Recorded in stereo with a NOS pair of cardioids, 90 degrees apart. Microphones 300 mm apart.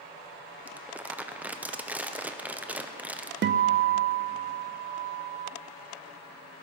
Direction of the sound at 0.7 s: 5° right.